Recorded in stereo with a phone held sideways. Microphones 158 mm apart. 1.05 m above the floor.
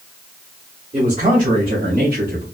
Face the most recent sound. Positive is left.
turn(degrees=-65)  # may be behind; listen again after turning